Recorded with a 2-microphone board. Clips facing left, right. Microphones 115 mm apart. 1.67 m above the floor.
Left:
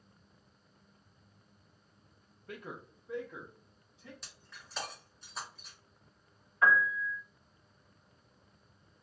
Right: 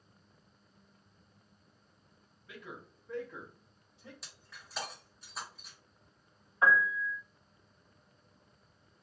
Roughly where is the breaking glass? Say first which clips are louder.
Even; centre.